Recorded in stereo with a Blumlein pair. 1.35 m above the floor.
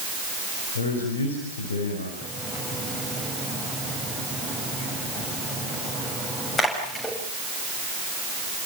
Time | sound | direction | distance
0.8 | a man speaking | 65° left | 5.5 m
2.2 | a splash | 15° left | 7.5 m